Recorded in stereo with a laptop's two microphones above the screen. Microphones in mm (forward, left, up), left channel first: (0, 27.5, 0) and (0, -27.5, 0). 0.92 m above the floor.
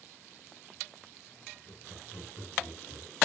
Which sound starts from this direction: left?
Laughter, at 1.6 s.